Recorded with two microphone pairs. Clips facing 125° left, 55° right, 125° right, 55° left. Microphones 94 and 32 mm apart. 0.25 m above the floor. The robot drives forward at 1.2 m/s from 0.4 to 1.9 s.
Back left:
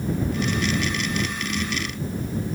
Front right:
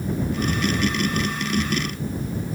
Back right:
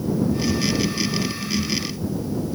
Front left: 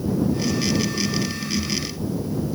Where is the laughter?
I don't hear laughter.